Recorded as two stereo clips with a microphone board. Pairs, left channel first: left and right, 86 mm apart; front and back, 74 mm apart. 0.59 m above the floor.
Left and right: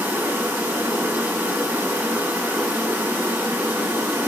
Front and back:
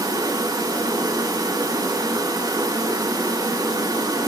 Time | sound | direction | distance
0.0 | running water | 160° right | 4.5 m